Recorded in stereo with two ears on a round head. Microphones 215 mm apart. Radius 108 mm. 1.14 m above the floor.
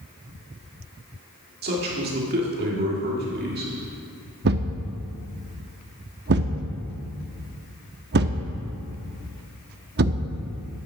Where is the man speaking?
40° right (ahead or behind), 2 m.